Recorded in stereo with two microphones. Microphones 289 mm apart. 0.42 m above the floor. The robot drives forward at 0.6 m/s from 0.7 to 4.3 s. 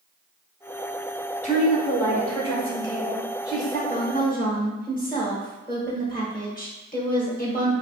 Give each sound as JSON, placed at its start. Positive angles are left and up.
{"t": 1.4, "sound": "a woman speaking", "side_deg": 25, "distance_m": 0.9}
{"t": 3.9, "sound": "a woman speaking", "side_deg": 30, "distance_m": 1.1}